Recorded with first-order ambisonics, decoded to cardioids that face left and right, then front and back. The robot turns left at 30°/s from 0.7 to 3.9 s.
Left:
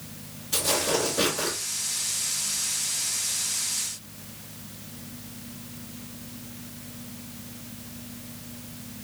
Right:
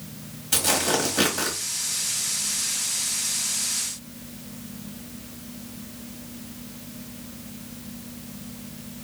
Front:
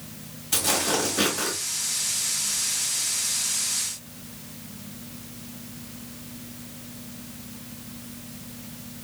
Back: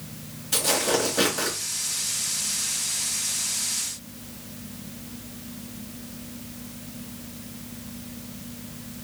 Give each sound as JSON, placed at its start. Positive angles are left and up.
{"t": 0.5, "sound": "tearing paper", "azimuth_deg": -90, "distance_m": 1.1}